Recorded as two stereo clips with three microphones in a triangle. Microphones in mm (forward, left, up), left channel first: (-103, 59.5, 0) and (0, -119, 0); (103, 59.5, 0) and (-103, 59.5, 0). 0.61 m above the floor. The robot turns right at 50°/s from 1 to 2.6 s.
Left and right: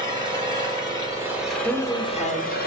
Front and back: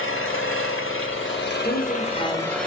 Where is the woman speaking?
15° left, 1.0 m; by 2.6 s 60° left, 1.0 m.